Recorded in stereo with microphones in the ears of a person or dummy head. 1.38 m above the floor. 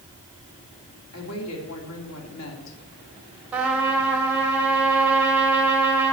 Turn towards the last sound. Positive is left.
turn(degrees=-5)  # may be behind; listen again after turning